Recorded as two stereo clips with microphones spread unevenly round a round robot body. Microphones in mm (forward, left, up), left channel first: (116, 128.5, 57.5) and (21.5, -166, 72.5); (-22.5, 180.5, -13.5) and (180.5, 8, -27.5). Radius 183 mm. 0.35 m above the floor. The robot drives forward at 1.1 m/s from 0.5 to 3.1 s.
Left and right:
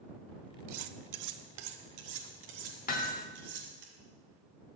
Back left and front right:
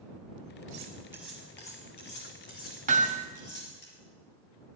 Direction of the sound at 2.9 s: 15° left.